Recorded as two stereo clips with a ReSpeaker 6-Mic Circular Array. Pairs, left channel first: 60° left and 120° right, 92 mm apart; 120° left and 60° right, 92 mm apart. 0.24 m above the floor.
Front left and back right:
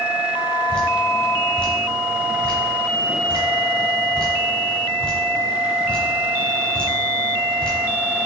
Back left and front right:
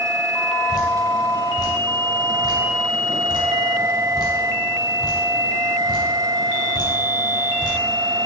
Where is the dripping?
135° left, 1.0 m.